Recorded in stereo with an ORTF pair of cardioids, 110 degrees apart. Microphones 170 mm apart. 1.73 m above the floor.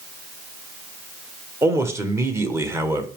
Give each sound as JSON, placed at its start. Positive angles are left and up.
{"t": 1.6, "sound": "a man speaking", "azimuth_deg": -15, "distance_m": 1.4}